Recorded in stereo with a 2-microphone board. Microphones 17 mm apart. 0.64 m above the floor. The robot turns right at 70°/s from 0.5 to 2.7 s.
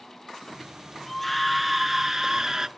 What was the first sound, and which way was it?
A scream, 10° left (ahead or behind).